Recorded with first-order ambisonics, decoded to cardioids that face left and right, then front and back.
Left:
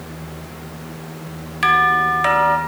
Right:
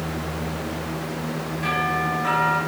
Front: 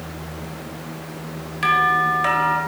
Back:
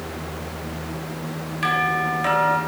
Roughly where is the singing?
I don't hear singing.